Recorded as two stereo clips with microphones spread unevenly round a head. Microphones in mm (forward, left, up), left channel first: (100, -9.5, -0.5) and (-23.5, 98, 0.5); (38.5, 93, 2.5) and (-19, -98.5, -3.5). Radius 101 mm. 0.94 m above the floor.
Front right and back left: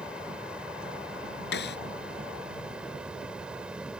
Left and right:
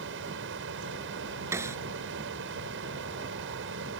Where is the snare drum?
30° right.